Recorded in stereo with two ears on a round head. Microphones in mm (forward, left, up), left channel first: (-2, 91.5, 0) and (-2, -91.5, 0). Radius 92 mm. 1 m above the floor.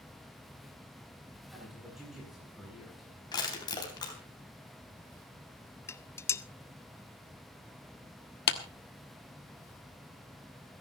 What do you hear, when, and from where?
1.5 s a man speaking: centre (ahead or behind), 9 m
3.3 s crushing: 20° left (ahead or behind), 3.5 m
5.9 s dishes clattering: 15° left (ahead or behind), 0.5 m
8.5 s a clap: 55° left (ahead or behind), 1.2 m